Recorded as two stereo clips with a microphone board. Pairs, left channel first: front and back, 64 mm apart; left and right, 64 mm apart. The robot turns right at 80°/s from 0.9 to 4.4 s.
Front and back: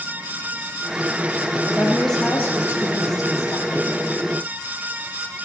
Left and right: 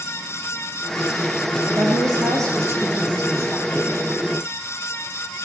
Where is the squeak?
I don't hear a squeak.